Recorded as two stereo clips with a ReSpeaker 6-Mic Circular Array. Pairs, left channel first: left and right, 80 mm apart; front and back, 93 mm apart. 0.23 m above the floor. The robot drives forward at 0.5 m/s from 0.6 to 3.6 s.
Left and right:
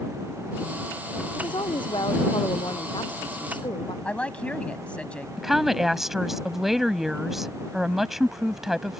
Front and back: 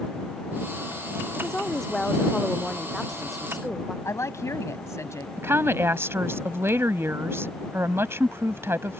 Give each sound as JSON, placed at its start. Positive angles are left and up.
{"t": 1.4, "sound": "a woman speaking", "azimuth_deg": 85}
{"t": 4.0, "sound": "a woman speaking", "azimuth_deg": 25}
{"t": 5.4, "sound": "a woman speaking", "azimuth_deg": -175}